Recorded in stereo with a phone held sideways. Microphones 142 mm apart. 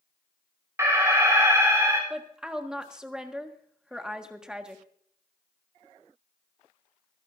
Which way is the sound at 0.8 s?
20° right (ahead or behind).